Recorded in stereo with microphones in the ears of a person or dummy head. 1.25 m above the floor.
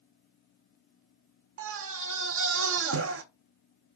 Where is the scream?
75° right (ahead or behind), 0.7 m.